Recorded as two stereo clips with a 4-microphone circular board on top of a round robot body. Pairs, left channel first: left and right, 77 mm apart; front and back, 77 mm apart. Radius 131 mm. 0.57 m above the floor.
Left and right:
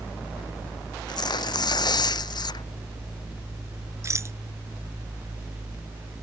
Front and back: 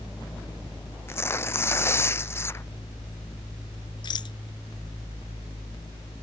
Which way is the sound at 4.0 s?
35° right.